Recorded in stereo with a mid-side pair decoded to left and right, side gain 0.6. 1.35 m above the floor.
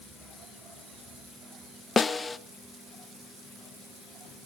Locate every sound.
2.0 s a snare drum: 25° left, 0.7 m